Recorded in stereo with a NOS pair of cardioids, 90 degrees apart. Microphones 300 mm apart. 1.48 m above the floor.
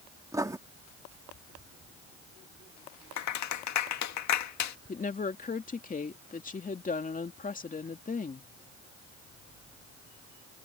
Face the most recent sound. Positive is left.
turn(degrees=25)